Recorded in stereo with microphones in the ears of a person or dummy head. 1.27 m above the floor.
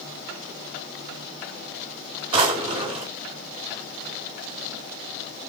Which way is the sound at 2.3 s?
35° right (ahead or behind).